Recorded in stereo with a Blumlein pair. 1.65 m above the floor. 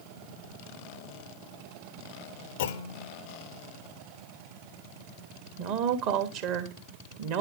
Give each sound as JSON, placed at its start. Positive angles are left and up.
{"t": 2.6, "sound": "a clunk", "azimuth_deg": 60, "distance_m": 0.7}
{"t": 5.6, "sound": "a woman speaking", "azimuth_deg": -45, "distance_m": 1.5}